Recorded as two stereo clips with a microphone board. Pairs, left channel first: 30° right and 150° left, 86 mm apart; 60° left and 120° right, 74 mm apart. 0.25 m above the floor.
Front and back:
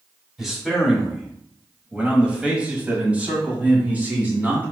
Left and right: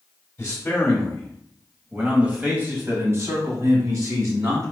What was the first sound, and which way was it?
A man speaking, 60° left.